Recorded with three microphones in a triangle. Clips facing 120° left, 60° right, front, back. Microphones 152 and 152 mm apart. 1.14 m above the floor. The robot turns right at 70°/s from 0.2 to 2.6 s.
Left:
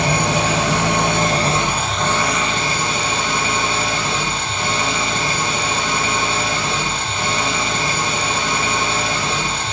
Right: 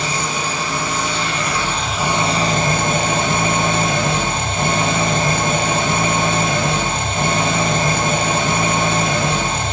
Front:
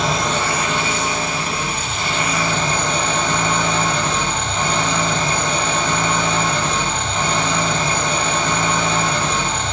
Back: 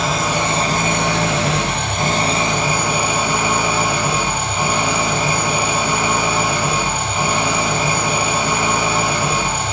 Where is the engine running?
90° left, 2.5 m; by 9.7 s 100° right, 2.5 m.